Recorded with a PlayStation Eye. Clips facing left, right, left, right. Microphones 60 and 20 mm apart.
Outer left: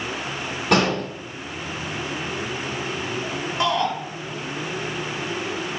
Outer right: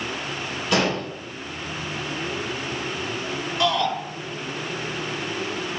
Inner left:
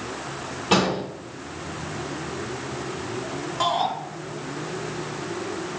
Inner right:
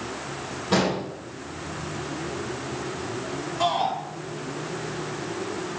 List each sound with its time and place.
0.7 s an explosion: 60° left (ahead or behind), 6 m
3.6 s a shout: 25° left (ahead or behind), 4 m